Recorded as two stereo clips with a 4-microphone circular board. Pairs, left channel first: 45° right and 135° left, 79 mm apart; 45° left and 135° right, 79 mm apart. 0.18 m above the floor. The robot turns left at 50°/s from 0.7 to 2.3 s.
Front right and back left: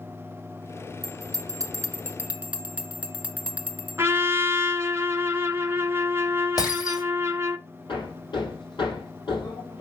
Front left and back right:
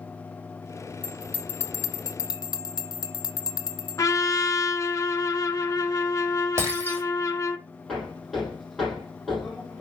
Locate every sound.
1.0 s a bell: 125° left, 0.8 m; by 4.0 s 65° left, 0.8 m
4.0 s a trumpet: 85° left, 0.8 m
6.6 s breaking glass: 80° right, 3 m
7.9 s hammering: 45° right, 5 m